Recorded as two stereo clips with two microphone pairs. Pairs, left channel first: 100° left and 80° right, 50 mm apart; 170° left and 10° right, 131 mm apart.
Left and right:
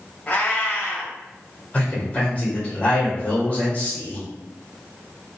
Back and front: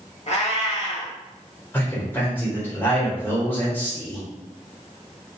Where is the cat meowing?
155° left, 0.8 m.